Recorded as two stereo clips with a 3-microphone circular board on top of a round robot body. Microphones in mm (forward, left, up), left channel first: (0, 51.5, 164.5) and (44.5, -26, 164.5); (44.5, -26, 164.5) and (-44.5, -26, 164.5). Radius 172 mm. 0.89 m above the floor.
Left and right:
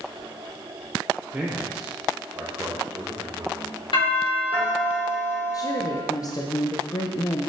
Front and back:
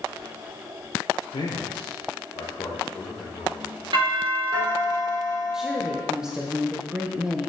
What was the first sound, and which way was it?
A man speaking, 15° left.